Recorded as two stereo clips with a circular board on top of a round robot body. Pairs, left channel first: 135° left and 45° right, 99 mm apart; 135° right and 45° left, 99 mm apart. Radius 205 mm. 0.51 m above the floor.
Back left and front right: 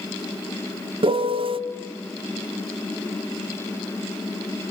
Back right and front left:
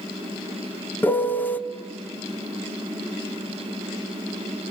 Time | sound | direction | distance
1.0 | a piano | 65° right | 1.6 m